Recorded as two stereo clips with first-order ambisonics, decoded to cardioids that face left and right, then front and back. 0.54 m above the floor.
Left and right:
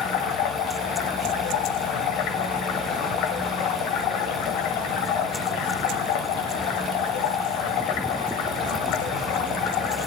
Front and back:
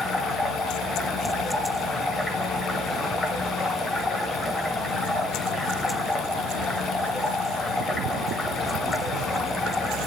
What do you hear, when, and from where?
0.0 s running water: 80° left, 1.9 m